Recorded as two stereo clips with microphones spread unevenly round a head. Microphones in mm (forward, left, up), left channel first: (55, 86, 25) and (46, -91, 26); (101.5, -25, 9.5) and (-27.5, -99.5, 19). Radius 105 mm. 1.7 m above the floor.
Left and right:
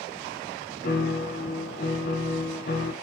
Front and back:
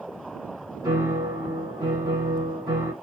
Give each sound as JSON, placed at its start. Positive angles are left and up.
{"t": 0.8, "sound": "a piano", "azimuth_deg": 135, "distance_m": 0.7}